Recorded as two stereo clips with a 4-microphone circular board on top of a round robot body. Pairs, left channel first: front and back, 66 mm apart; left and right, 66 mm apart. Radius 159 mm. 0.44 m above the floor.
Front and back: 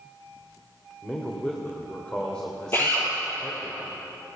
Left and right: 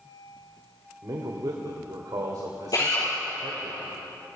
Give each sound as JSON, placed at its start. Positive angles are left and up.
{"t": 1.0, "sound": "a man speaking", "azimuth_deg": -75, "distance_m": 3.0}
{"t": 2.7, "sound": "a drill", "azimuth_deg": 55, "distance_m": 7.5}